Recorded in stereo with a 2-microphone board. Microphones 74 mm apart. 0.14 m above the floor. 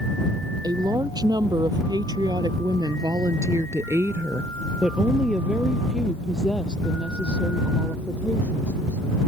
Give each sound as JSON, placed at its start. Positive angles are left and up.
{"t": 0.6, "sound": "a woman speaking", "side_deg": -60}